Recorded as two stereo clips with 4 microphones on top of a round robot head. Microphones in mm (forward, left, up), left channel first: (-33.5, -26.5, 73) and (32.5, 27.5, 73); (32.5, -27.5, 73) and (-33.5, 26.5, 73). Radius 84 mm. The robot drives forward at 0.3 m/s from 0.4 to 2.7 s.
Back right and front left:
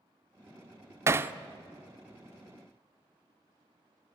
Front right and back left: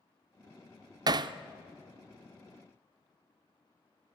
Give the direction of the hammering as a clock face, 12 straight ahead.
9 o'clock.